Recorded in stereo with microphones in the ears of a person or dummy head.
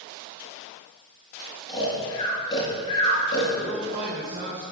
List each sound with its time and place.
1.7 s snoring: 15° left (ahead or behind), 6 m
3.6 s a man speaking: 45° right (ahead or behind), 5.5 m